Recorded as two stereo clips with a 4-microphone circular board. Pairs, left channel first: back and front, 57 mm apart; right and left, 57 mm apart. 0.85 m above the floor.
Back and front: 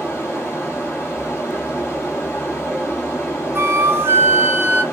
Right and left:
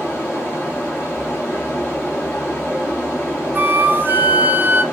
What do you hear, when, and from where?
0.0 s running water: 140° right, 1.7 m
3.5 s a flute: 40° left, 0.5 m